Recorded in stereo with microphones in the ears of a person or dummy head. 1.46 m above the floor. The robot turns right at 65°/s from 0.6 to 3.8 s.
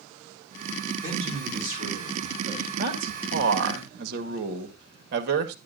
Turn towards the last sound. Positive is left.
turn(degrees=-55)